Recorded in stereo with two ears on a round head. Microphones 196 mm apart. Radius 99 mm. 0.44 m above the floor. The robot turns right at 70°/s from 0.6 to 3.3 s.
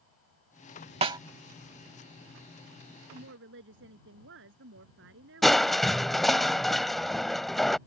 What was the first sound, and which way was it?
A snare drum, 30° right (ahead or behind).